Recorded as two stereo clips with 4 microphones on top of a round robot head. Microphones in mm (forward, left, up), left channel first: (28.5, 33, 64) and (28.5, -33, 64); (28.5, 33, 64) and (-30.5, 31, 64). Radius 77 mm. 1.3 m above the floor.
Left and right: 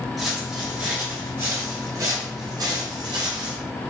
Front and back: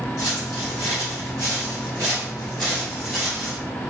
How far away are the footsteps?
About 1.4 m.